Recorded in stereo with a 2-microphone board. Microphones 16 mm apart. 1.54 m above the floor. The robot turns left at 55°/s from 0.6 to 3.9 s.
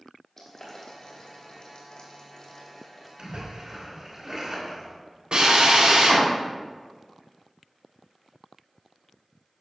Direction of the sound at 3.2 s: 110° right.